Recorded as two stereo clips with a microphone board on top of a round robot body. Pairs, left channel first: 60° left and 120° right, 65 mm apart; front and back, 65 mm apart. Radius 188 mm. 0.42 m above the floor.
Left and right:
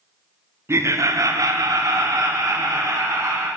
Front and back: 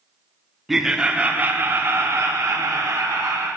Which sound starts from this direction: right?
Laughter, at 0.7 s.